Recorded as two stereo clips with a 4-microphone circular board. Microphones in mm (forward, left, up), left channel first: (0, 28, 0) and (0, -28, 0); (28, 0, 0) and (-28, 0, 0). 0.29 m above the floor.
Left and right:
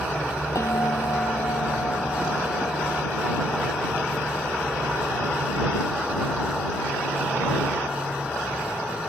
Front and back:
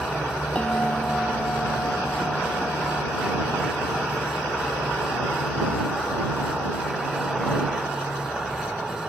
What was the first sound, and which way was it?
A bell, 70° left.